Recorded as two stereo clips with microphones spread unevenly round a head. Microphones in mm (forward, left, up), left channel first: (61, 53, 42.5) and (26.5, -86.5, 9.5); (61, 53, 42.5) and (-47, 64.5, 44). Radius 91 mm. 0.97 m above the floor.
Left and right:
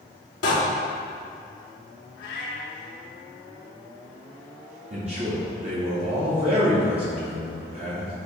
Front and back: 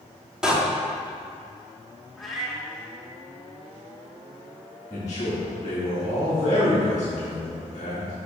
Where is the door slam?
90° left, 1.5 m.